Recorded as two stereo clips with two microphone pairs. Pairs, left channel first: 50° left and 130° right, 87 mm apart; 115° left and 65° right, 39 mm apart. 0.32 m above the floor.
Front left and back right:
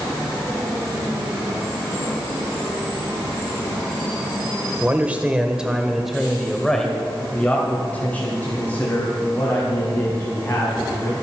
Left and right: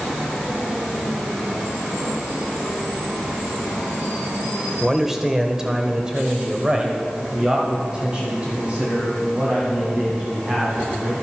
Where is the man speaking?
130° right, 1.4 m; by 11.1 s 5° right, 3.5 m.